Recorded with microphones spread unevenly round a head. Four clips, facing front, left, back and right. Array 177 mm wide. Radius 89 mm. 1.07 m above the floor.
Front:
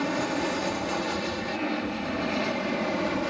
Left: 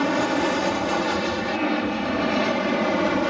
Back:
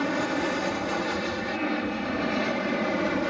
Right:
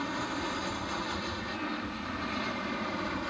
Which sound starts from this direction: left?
An aircraft, at 0.0 s.